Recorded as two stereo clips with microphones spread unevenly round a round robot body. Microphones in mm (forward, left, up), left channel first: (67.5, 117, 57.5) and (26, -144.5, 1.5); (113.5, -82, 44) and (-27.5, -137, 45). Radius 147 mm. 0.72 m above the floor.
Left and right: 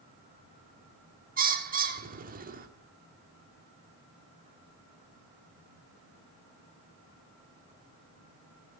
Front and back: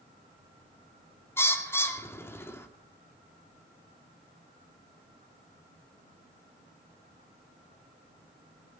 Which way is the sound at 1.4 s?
50° right.